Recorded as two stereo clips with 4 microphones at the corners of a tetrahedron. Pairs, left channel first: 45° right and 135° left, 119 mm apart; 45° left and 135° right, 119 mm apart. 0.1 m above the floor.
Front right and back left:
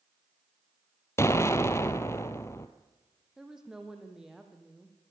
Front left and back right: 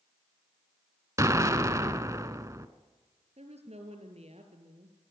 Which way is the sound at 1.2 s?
90° right.